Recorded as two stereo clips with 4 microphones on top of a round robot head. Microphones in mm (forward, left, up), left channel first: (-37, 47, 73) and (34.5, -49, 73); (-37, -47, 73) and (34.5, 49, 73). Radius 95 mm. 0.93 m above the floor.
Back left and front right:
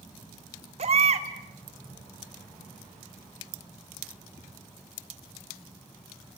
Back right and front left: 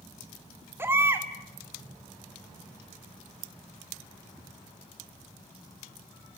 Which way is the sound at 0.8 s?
20° right.